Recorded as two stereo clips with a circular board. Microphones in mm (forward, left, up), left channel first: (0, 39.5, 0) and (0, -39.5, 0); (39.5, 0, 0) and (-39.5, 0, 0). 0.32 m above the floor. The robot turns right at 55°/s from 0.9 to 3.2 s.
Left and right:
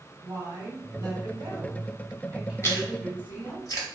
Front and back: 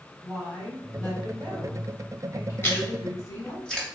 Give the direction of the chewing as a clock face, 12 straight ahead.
10 o'clock.